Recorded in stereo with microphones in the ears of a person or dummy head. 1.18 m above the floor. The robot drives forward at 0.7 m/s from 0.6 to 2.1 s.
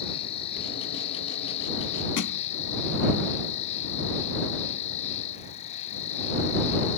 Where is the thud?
65° left (ahead or behind).